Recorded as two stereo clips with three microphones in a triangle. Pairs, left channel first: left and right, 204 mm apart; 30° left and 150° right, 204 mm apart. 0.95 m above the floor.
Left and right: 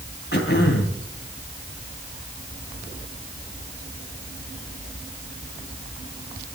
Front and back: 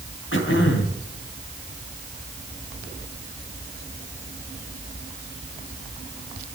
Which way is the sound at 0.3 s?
55° left.